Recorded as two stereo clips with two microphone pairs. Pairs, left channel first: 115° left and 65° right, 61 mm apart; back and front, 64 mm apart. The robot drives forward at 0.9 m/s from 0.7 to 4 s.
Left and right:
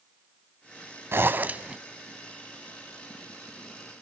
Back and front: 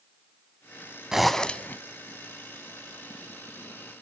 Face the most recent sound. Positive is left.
turn(degrees=-170)